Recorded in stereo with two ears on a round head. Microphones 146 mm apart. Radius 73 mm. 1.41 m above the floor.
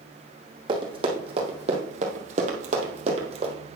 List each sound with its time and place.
0.7 s running footsteps: 30° right (ahead or behind), 3 m; by 3.5 s 35° right (ahead or behind), 2.5 m